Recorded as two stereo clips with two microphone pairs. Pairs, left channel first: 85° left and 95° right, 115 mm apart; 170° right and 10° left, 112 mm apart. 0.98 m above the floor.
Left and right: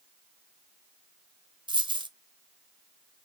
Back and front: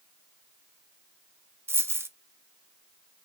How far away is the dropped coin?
About 0.5 m.